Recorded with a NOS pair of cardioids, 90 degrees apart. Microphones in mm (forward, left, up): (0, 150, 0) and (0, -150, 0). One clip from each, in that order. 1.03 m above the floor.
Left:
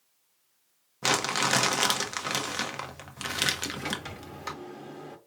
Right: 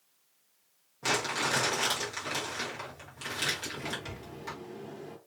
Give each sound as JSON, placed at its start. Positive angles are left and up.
{"t": 1.0, "sound": "crumpling", "azimuth_deg": 60, "distance_m": 0.9}
{"t": 3.8, "sound": "a sliding door", "azimuth_deg": 25, "distance_m": 1.1}